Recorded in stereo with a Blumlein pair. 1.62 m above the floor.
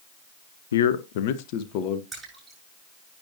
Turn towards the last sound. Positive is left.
turn(degrees=-15)